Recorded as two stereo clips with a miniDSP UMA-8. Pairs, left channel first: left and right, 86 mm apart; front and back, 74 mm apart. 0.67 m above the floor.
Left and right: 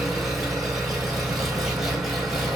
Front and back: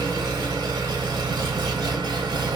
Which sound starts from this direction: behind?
An engine running, at 0.0 s.